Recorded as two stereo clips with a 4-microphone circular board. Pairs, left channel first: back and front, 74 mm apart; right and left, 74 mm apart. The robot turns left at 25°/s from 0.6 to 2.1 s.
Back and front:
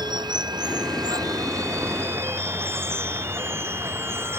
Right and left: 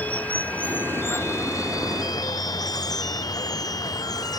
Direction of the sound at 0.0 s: 20° right.